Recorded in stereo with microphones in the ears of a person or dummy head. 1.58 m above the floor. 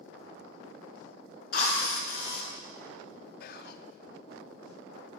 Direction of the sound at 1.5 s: 55° left (ahead or behind).